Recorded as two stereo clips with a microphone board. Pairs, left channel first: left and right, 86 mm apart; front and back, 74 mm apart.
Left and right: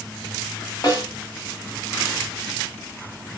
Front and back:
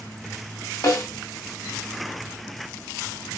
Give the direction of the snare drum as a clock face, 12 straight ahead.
10 o'clock.